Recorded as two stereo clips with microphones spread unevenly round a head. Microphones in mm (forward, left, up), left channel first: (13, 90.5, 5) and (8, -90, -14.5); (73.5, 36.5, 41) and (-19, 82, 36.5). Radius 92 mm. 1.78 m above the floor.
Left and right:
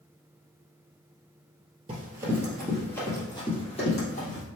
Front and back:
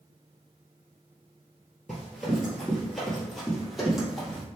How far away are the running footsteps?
About 1.8 m.